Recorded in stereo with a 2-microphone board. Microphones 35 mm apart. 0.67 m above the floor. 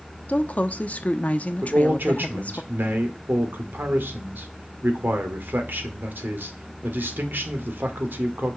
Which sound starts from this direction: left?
A woman speaking, at 0.3 s.